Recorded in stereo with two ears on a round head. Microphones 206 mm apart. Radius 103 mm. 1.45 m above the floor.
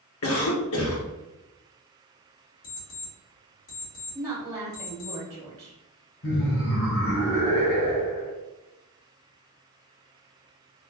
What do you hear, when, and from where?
0.2 s a cough: 65° left (ahead or behind), 0.8 m
2.6 s an alarm clock: 60° left (ahead or behind), 1.9 m
4.2 s a woman speaking: 15° right (ahead or behind), 0.7 m
6.2 s laughter: 65° left (ahead or behind), 1.0 m